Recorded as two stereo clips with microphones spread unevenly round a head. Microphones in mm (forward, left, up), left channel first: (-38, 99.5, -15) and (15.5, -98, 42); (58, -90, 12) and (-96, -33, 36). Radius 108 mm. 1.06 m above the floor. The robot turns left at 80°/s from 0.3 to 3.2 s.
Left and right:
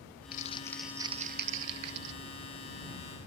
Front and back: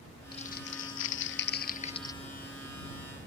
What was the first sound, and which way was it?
Crumpling, 50° left.